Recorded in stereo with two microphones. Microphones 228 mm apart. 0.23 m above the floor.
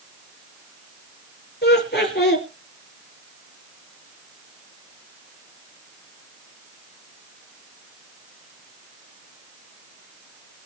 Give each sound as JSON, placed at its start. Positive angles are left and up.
{"t": 1.6, "sound": "laughter", "side_deg": 50, "distance_m": 4.5}